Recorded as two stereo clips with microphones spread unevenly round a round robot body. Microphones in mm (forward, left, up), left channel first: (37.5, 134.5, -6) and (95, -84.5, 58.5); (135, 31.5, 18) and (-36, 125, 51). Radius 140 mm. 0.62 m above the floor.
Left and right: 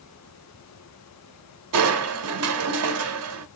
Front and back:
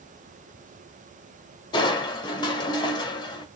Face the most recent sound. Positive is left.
turn(degrees=-90)